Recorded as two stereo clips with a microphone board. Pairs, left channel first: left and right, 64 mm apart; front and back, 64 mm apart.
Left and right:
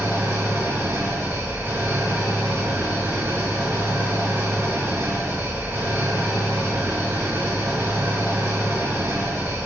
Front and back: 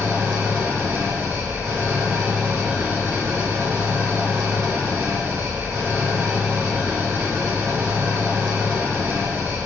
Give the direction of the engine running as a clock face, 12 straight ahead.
4 o'clock.